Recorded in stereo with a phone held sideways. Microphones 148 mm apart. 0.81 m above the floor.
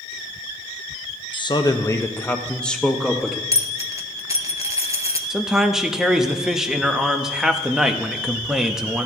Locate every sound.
1.3 s a man speaking: 35° left (ahead or behind), 0.7 m; by 3.4 s 5° right (ahead or behind), 1.3 m
3.5 s a dropped coin: 25° right (ahead or behind), 0.9 m
5.3 s a man speaking: 5° right (ahead or behind), 0.8 m